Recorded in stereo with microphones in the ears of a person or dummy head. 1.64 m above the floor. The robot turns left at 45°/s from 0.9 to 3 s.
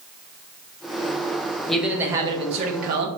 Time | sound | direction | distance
1.7 | a man speaking | 5° left | 0.7 m